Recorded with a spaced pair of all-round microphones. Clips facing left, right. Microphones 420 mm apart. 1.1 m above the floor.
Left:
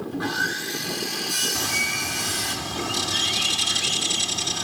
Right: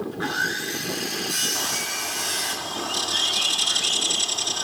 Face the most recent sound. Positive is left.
turn(degrees=40)  # may be behind; listen again after turning